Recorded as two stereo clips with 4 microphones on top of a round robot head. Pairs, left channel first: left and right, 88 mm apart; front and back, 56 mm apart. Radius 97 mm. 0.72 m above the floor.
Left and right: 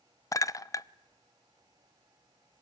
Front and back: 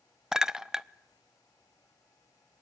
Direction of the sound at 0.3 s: 105° left.